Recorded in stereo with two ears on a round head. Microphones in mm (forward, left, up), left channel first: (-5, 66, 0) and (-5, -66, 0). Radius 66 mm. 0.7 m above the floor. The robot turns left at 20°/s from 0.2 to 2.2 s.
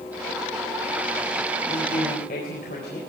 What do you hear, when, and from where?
1.7 s a woman speaking: 70° left (ahead or behind), 3.5 m; by 3.0 s 60° left (ahead or behind), 3.5 m